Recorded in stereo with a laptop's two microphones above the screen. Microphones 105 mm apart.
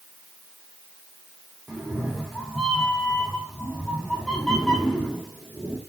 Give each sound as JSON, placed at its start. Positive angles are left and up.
{"t": 1.7, "sound": "a cat meowing", "side_deg": 5, "distance_m": 1.5}